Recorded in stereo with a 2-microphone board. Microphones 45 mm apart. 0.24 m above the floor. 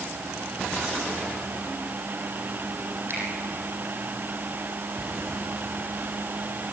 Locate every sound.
3.1 s a finger snap: 55° right (ahead or behind), 7.5 m